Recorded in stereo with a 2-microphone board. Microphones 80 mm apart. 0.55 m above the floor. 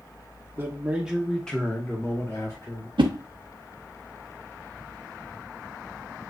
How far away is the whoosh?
About 0.6 m.